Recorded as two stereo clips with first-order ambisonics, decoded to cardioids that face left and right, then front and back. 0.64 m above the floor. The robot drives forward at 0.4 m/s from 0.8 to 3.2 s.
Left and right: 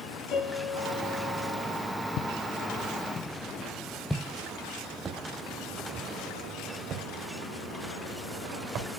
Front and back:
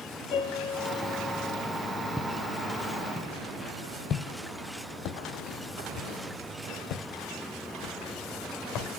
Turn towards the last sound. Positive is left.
turn(degrees=-35)